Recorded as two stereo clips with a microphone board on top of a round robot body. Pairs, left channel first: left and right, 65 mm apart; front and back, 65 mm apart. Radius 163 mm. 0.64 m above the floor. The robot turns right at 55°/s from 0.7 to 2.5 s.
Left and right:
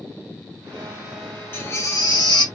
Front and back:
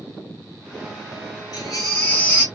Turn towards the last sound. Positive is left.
turn(degrees=85)